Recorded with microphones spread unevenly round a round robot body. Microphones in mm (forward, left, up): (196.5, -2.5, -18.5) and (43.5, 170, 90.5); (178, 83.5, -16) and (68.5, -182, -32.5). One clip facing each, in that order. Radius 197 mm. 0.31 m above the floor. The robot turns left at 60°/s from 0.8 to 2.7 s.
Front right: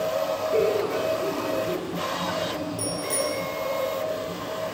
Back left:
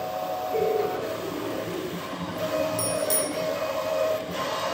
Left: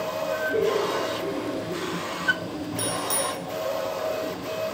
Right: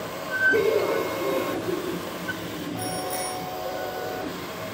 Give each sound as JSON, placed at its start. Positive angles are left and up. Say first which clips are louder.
{"t": 0.5, "sound": "laughter", "louder": "front right 1 dB, right 3 dB", "azimuth_deg": -70, "distance_m": 4.0}
{"t": 2.8, "sound": "a bicycle bell", "louder": "back left 1 dB, left 1 dB", "azimuth_deg": 110, "distance_m": 9.5}